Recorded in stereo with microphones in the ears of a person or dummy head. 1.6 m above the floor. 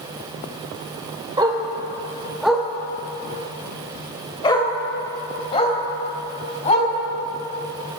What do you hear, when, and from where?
1.4 s a dog barking: 20° right (ahead or behind), 1.9 m; by 6.9 s 40° left (ahead or behind), 4 m